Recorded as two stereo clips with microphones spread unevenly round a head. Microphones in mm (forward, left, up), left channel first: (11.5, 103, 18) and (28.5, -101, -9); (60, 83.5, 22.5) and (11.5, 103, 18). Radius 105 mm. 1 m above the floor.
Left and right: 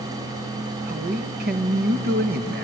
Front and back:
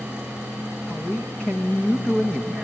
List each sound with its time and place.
0.9 s a man speaking: 105° right, 1.3 m